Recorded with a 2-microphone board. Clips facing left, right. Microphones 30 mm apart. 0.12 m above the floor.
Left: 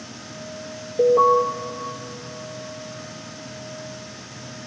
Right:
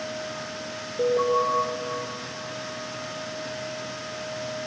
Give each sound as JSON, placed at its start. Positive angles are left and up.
{"t": 1.0, "sound": "an alarm", "side_deg": 25, "distance_m": 3.5}